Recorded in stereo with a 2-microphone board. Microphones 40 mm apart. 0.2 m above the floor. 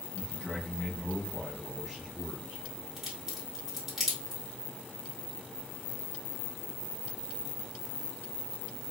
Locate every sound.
0.1 s a man speaking: 35° left (ahead or behind), 1.5 m; by 2.6 s 15° right (ahead or behind), 1.5 m
3.0 s a crack: 5° right (ahead or behind), 2 m